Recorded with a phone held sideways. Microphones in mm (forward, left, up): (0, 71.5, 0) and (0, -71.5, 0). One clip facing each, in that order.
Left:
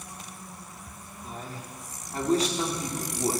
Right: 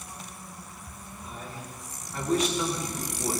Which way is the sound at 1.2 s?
35° left (ahead or behind).